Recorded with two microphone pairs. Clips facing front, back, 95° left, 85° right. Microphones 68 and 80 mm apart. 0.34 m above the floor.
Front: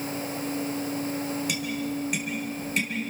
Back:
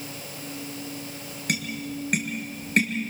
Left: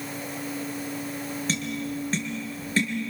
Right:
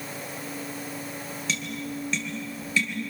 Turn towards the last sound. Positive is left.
turn(degrees=140)